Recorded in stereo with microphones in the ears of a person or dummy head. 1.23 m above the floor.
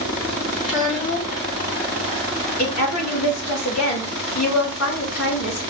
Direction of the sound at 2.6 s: 70° left (ahead or behind).